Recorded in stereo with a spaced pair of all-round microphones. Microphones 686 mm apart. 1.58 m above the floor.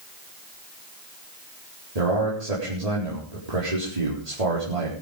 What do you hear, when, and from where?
1.9 s a man speaking: 65° right (ahead or behind), 4.5 m